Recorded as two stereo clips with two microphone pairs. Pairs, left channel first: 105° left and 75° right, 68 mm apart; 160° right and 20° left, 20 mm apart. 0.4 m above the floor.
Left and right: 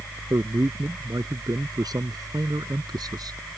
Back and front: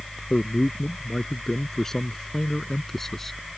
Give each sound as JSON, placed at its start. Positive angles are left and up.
{"t": 0.3, "sound": "a man speaking", "azimuth_deg": -100}